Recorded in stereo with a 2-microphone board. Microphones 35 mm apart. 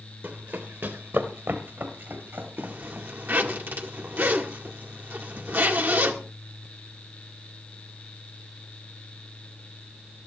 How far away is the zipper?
About 1.9 m.